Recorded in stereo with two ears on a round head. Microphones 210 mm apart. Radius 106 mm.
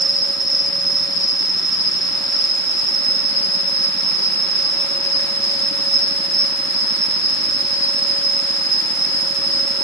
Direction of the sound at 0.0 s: 35° left (ahead or behind).